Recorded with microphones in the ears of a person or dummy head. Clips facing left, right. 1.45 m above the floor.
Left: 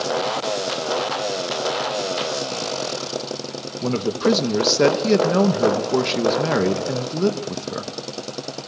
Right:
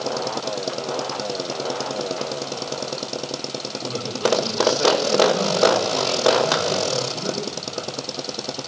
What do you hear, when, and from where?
3.8 s a man speaking: 70° left (ahead or behind), 2 m